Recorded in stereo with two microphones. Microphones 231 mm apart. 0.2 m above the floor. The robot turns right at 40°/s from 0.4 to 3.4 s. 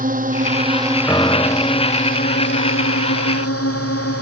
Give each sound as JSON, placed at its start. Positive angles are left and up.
{"t": 0.0, "sound": "a drone", "side_deg": -35}
{"t": 1.1, "sound": "a piano", "azimuth_deg": 10}